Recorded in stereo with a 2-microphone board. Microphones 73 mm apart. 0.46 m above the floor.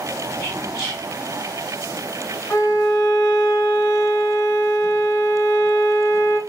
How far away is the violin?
About 2 m.